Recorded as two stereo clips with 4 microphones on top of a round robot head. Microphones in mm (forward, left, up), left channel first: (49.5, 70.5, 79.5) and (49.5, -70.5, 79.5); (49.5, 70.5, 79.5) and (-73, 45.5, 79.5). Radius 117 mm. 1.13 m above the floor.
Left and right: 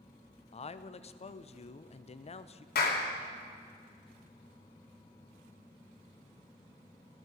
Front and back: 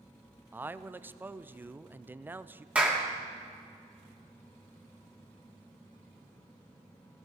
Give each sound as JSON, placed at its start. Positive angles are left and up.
{"t": 0.5, "sound": "a man speaking", "azimuth_deg": 120, "distance_m": 0.7}
{"t": 2.8, "sound": "a clap", "azimuth_deg": 110, "distance_m": 2.5}